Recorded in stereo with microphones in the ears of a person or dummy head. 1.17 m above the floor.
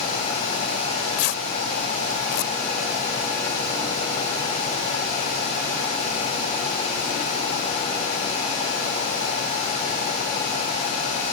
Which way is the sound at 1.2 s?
70° left (ahead or behind).